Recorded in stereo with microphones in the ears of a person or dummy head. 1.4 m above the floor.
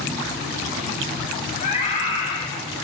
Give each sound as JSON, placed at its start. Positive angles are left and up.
{"t": 1.6, "sound": "a scream", "side_deg": 40, "distance_m": 3.5}